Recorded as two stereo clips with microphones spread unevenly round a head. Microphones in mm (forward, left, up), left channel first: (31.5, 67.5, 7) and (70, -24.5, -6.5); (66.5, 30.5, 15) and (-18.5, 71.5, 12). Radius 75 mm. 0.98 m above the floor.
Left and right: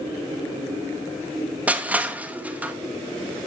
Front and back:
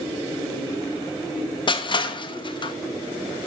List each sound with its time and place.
1.7 s crushing: 5° left, 1.1 m